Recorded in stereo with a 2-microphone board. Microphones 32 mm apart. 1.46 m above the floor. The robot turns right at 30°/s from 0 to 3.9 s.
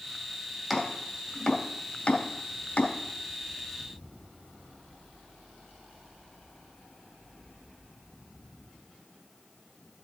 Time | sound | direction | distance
0.7 | chopping | centre (ahead or behind) | 2.5 m